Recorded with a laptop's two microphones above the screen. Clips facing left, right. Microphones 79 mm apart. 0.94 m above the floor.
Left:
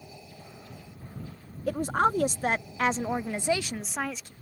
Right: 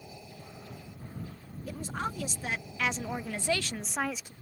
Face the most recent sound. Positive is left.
turn(degrees=-10)  # may be behind; listen again after turning